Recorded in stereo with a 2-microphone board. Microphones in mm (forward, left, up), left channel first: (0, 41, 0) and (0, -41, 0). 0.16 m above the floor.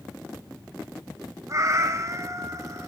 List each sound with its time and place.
1.5 s a cat meowing: 45° right (ahead or behind), 1.1 m